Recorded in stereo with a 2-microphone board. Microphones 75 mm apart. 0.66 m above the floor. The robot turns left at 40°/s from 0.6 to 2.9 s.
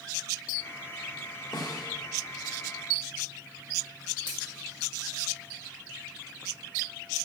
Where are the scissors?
80° left, 4.5 m.